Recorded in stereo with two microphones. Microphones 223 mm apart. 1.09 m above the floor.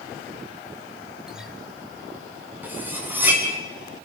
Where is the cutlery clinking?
10° right (ahead or behind), 5.5 m.